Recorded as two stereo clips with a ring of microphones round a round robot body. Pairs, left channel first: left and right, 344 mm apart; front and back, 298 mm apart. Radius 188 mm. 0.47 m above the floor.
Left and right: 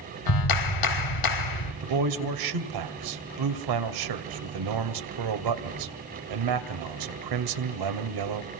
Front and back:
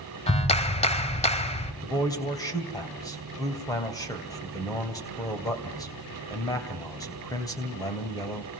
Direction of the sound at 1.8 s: 80° right.